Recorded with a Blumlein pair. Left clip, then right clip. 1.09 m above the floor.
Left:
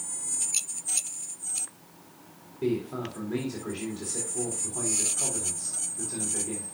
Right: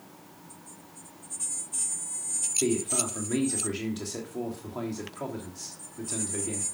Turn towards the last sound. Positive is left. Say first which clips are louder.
# left 1 dB
turn(degrees=-55)